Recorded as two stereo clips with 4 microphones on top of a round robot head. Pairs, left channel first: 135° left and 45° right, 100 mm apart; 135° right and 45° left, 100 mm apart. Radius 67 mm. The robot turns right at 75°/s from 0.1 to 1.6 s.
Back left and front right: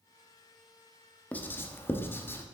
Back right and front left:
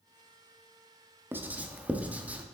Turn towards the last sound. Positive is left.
turn(degrees=100)